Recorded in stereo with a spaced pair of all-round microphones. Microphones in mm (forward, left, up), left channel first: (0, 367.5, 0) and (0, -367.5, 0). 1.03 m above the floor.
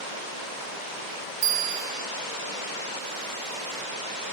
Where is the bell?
55° right (ahead or behind), 0.6 m.